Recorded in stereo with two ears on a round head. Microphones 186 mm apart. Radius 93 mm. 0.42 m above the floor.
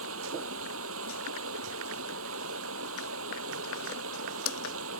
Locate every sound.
0.0 s running water: 70° right (ahead or behind)